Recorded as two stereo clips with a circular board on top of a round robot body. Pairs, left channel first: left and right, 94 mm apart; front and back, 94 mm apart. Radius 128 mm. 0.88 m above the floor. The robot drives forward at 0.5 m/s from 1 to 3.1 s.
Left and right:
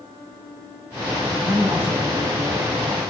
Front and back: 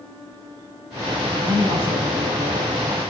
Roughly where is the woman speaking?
Behind.